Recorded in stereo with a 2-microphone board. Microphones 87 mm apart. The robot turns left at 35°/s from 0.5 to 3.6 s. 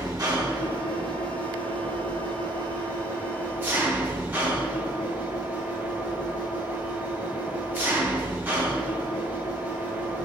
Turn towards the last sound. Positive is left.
turn(degrees=-155)